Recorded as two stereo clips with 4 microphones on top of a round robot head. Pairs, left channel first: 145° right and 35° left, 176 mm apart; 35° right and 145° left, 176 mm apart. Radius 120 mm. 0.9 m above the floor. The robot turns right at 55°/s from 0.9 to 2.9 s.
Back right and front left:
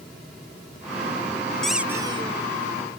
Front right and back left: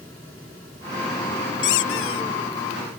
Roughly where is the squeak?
Ahead right.